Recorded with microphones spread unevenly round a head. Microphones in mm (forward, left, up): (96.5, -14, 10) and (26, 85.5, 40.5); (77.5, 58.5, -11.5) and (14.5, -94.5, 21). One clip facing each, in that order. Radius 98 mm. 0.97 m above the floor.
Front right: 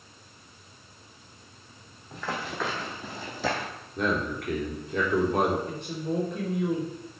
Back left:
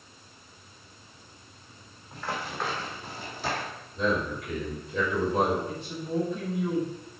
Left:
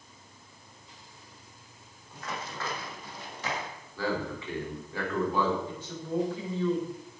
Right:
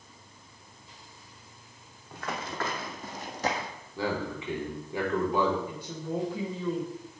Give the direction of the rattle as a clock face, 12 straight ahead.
I don't hear a rattle.